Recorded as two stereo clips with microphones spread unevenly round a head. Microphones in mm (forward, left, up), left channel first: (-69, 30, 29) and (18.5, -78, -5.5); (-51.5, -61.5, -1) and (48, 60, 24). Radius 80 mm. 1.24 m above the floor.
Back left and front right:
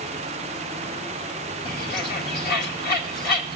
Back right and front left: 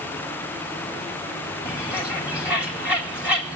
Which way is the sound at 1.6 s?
135° left.